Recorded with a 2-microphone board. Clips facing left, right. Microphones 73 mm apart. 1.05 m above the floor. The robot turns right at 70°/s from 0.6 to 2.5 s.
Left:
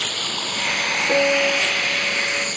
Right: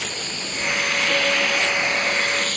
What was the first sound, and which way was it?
Running water, 115° left.